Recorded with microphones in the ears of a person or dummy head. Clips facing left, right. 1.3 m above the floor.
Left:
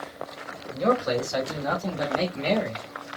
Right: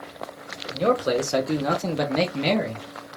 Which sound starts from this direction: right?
A man speaking, at 0.7 s.